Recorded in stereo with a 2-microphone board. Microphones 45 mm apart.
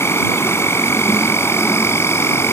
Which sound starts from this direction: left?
An insect, at 0.0 s.